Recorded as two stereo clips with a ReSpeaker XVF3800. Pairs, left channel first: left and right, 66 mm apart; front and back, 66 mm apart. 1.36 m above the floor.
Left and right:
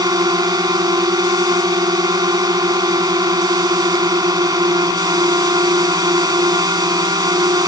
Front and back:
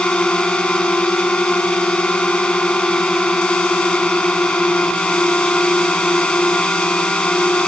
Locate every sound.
0.0 s a drone: 75° right